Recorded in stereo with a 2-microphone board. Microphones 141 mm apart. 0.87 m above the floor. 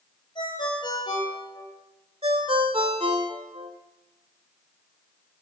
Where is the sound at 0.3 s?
30° left (ahead or behind), 8.5 m.